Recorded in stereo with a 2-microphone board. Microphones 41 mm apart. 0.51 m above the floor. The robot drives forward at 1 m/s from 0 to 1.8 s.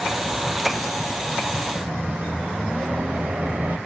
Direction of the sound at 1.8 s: 45° right (ahead or behind).